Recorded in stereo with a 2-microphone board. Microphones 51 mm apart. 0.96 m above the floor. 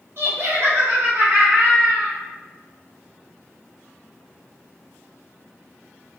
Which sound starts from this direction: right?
Laughter, at 0.2 s.